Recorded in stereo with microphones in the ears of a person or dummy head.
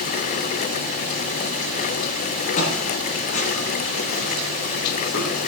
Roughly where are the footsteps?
Left.